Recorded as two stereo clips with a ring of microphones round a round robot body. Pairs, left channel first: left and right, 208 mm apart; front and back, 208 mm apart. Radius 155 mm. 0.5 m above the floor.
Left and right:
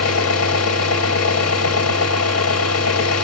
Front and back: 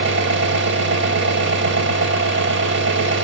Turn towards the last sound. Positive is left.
turn(degrees=130)